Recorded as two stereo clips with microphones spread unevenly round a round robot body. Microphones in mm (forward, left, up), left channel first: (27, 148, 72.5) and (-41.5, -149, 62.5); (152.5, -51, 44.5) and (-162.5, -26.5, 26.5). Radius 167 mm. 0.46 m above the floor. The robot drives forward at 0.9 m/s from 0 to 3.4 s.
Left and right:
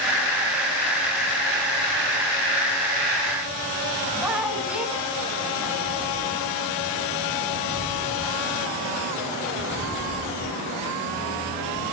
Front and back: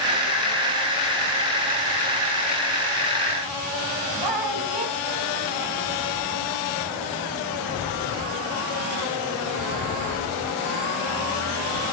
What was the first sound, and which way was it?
A woman speaking, 170° left.